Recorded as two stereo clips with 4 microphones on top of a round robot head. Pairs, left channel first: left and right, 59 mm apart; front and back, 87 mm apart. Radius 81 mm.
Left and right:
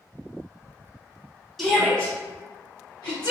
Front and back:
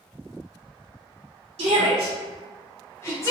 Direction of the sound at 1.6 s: 175° left.